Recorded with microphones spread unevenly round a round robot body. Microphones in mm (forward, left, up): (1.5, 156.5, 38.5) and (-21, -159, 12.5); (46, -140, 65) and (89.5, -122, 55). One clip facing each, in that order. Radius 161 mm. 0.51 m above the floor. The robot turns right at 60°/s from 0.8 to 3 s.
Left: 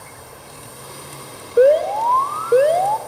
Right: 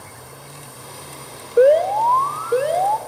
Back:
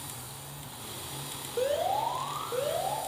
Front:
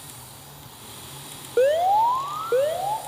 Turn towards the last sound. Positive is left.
turn(degrees=80)